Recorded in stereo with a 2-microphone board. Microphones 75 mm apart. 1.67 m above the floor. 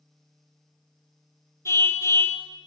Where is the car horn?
35° left (ahead or behind), 2.5 m.